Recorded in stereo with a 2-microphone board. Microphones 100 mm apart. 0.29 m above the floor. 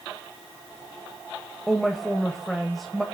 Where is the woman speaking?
Centre (ahead or behind), 1.1 m.